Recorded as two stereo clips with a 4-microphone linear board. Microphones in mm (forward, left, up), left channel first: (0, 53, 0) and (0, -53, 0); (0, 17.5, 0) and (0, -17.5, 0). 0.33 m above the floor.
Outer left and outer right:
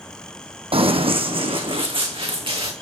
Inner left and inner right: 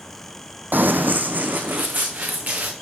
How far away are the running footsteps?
About 0.6 m.